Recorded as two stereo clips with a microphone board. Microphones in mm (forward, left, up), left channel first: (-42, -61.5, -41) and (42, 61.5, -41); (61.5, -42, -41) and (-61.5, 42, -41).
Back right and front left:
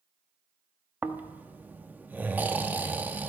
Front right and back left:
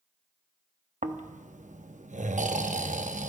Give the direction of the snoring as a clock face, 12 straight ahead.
8 o'clock.